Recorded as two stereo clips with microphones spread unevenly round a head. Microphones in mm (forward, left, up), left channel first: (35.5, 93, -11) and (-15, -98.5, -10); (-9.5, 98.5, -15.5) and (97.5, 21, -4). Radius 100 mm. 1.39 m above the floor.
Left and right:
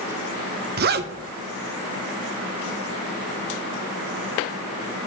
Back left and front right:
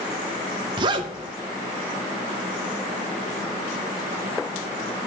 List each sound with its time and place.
0.8 s a zipper: 85° right, 0.7 m